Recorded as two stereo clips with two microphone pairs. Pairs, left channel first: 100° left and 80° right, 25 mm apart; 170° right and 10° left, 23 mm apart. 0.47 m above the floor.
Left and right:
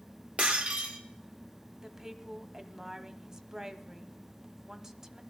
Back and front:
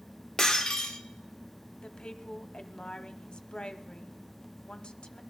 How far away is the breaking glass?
About 1.3 m.